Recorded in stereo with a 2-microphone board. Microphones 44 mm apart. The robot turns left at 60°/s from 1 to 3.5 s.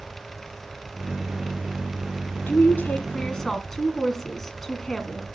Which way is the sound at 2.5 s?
75° left.